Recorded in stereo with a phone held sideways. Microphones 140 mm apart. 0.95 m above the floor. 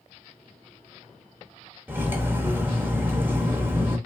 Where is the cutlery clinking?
15° right (ahead or behind), 0.6 m.